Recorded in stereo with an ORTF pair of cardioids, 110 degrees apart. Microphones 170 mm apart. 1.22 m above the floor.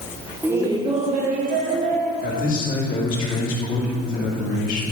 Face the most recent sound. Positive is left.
turn(degrees=55)